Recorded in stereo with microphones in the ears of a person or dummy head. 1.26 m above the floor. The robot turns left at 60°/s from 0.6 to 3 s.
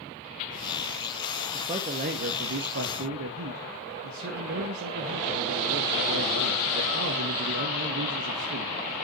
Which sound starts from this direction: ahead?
A man speaking, at 1.5 s.